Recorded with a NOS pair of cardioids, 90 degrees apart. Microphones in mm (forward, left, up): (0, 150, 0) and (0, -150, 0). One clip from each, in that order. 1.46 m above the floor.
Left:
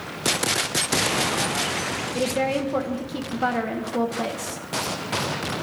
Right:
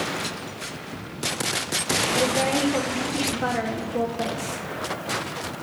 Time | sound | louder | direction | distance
2.1 | a woman speaking | left 1 dB | 10° left | 1.0 m